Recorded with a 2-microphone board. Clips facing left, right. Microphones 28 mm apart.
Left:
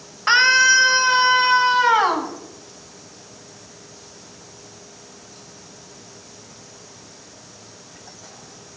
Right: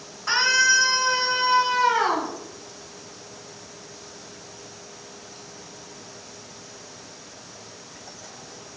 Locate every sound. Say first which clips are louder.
0.3 s a scream: left 5 dB; 55° left (ahead or behind), 1.2 m; by 2.3 s 75° left (ahead or behind), 2.5 m